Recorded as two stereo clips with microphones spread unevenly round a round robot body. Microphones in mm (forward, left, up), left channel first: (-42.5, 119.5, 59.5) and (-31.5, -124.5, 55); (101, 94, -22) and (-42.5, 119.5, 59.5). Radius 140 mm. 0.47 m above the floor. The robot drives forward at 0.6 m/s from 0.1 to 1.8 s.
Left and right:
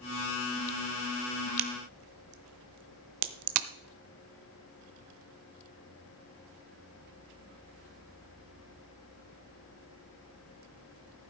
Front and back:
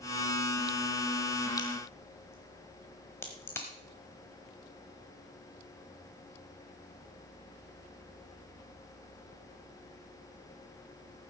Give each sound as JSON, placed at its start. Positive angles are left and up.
{"t": 1.6, "sound": "a crack", "azimuth_deg": -75, "distance_m": 0.8}